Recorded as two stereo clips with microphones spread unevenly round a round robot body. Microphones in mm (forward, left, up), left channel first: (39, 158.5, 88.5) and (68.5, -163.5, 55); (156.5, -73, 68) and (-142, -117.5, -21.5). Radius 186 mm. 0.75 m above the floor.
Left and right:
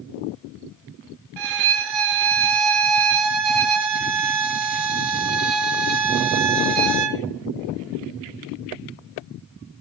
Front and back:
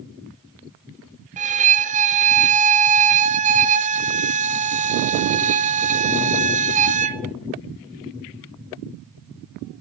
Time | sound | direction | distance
1.4 | a violin | 95° right | 0.8 m